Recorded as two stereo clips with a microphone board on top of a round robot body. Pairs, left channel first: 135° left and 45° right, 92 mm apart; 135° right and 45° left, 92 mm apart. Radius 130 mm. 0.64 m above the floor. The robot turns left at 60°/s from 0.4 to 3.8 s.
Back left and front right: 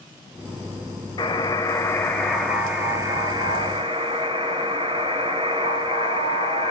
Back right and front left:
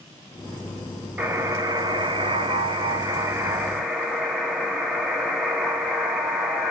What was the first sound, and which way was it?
A buzzer, 115° left.